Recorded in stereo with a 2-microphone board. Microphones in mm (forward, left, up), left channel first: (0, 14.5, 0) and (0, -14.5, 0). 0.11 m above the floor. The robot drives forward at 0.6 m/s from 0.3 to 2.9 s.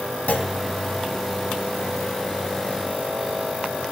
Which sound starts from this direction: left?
A clunk, at 0.3 s.